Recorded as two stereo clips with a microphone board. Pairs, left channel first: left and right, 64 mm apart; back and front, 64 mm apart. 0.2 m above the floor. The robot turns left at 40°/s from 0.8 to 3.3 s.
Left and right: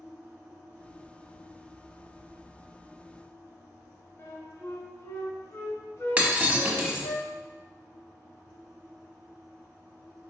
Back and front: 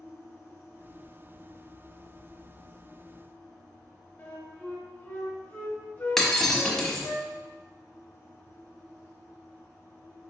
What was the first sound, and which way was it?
A flute, 125° left.